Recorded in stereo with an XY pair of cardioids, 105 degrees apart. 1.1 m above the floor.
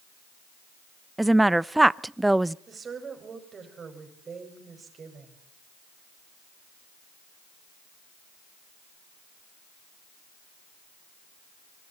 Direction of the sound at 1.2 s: 10° right.